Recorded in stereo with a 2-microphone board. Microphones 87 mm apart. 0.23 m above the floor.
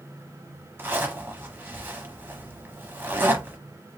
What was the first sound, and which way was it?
A zipper, 25° right (ahead or behind).